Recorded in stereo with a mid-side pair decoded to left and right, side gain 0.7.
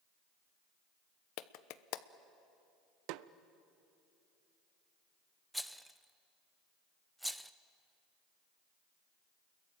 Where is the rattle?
Straight ahead, 0.8 m.